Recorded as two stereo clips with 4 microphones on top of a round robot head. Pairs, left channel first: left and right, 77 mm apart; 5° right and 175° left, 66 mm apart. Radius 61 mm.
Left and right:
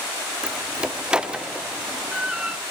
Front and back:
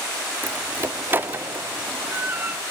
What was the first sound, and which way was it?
A door slam, 160° right.